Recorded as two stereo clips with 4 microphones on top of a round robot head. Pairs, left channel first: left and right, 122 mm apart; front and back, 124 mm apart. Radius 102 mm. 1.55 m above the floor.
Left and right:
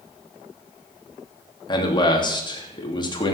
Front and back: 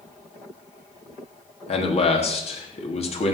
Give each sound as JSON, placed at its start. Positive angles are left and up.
{"t": 1.7, "sound": "a man speaking", "azimuth_deg": 35, "distance_m": 3.0}